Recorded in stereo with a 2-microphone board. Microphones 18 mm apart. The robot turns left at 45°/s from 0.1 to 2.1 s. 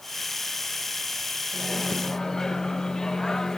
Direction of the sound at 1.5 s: 45° left (ahead or behind).